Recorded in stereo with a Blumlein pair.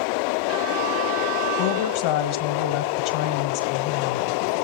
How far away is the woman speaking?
About 1.1 m.